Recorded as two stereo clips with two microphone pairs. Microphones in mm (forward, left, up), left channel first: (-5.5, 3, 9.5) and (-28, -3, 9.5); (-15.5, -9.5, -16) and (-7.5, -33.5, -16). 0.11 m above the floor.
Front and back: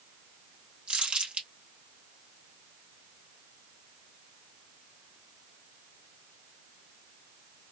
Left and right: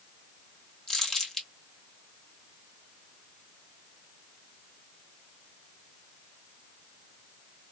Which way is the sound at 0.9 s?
175° left.